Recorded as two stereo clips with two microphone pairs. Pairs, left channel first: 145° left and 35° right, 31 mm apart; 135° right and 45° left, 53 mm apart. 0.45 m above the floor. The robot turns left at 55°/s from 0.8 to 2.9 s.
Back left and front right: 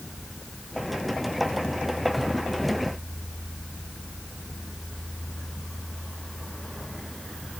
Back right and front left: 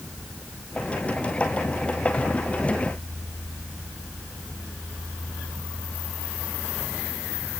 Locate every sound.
Only background noise.